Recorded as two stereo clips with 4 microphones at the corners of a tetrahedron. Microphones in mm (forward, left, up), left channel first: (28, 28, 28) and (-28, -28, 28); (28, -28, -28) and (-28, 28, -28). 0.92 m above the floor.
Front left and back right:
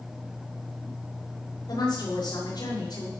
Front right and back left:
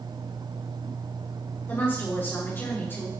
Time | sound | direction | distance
1.7 | a woman speaking | 20° left | 8 m